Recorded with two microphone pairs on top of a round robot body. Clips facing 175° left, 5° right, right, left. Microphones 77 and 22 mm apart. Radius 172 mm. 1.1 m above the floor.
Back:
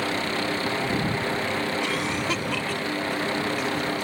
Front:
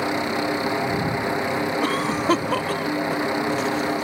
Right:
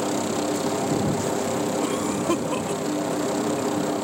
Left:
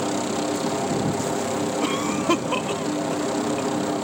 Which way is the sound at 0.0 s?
25° left.